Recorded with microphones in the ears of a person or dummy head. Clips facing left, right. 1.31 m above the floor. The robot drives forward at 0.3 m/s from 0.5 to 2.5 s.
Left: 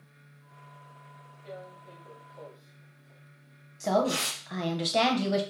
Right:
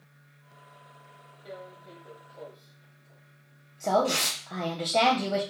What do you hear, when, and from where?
1.4 s tearing paper: 20° right (ahead or behind), 2 m; by 4.4 s 25° right (ahead or behind), 1.7 m
3.8 s a woman speaking: 10° left (ahead or behind), 0.5 m